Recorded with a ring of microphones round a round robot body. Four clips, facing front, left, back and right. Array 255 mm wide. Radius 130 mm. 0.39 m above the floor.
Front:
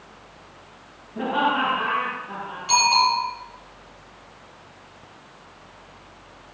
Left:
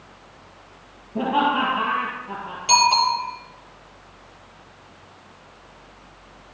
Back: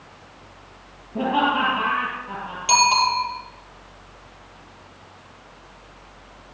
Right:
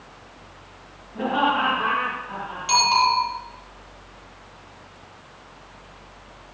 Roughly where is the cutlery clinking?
I don't hear cutlery clinking.